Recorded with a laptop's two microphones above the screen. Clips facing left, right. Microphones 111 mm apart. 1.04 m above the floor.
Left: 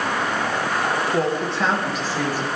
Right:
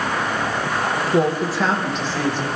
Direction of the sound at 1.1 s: 20° right (ahead or behind).